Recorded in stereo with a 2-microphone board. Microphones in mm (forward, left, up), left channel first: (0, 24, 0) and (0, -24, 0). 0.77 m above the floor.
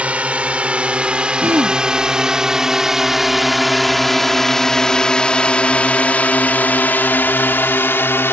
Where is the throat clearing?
55° right (ahead or behind).